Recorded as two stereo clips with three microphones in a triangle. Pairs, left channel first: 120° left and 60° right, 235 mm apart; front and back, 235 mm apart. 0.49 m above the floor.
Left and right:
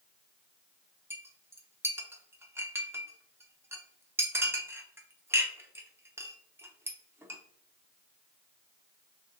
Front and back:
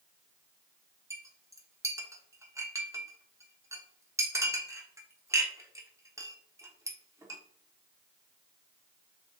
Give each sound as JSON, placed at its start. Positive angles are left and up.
{"t": 1.1, "sound": "a clink", "azimuth_deg": -125, "distance_m": 0.7}